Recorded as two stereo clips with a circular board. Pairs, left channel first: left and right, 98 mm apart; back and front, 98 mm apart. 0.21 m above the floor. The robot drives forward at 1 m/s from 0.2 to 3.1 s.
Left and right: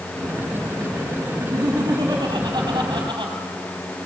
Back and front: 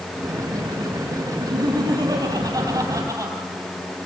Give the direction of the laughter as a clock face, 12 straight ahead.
1 o'clock.